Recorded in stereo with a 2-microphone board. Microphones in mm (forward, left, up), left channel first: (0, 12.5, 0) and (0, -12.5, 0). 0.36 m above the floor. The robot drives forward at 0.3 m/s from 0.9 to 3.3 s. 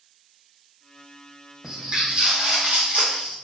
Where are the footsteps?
25° right (ahead or behind), 1.0 m; by 3.4 s 75° right (ahead or behind), 1.0 m.